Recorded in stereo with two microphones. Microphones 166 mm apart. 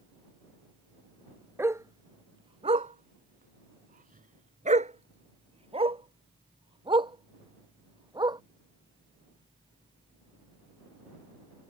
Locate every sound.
1.6 s a dog barking: 15° right (ahead or behind); by 8.4 s 25° right (ahead or behind)